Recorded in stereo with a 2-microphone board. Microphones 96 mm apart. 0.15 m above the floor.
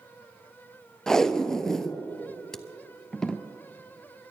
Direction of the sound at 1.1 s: 5° left (ahead or behind).